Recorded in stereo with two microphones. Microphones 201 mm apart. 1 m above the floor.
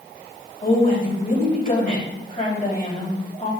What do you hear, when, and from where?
0.6 s a woman speaking: 35° left (ahead or behind), 4.5 m